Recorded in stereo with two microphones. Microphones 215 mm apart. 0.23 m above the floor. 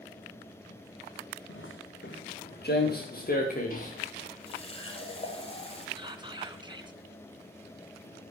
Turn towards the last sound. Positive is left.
turn(degrees=-20)  # may be behind; listen again after turning